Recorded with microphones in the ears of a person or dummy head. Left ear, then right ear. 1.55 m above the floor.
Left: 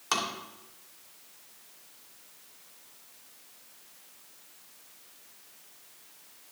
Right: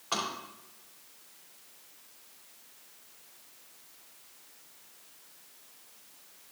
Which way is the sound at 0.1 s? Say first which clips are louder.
Left 3 dB; 80° left.